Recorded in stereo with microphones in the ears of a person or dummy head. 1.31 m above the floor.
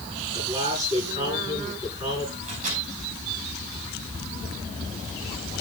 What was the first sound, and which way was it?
A man speaking, 20° right (ahead or behind).